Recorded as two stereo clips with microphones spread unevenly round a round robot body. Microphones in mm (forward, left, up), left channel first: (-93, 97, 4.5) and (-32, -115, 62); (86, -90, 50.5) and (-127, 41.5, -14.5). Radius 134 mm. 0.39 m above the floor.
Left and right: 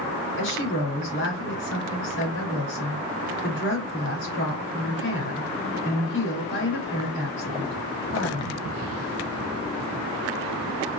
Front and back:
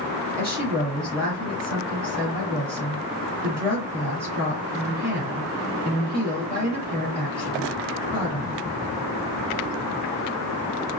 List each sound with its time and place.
0.4 s a woman speaking: 70° left, 4 m